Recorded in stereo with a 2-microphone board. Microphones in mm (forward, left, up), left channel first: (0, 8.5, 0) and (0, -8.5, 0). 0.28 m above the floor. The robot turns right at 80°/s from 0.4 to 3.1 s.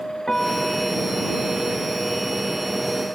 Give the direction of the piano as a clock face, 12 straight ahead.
11 o'clock.